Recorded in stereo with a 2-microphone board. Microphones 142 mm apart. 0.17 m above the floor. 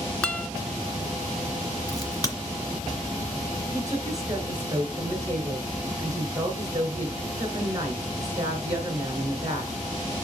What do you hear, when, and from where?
0.2 s a guitar: 10° left (ahead or behind), 0.5 m
1.9 s a crack: 30° left (ahead or behind), 1.7 m
3.7 s a woman speaking: 25° right (ahead or behind), 2.5 m